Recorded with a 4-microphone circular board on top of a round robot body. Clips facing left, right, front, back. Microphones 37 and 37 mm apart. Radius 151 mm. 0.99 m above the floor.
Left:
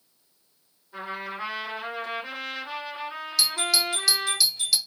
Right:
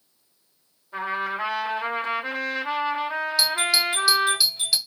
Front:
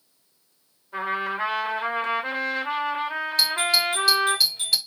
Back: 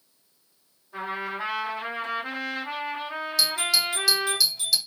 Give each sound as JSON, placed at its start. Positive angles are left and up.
{"t": 0.9, "sound": "a trumpet", "azimuth_deg": -50, "distance_m": 2.5}
{"t": 3.4, "sound": "a doorbell", "azimuth_deg": -30, "distance_m": 1.4}